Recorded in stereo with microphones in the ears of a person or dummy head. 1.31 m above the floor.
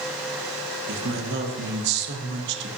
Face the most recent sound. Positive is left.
turn(degrees=-55)  # may be behind; listen again after turning